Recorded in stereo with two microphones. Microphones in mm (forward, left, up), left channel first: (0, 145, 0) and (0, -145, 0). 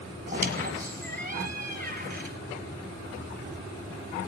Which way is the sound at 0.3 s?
30° right (ahead or behind).